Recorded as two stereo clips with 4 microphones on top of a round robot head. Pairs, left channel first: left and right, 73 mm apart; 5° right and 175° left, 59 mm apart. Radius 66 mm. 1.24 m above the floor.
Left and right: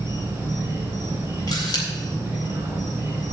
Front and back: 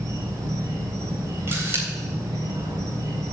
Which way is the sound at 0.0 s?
155° right.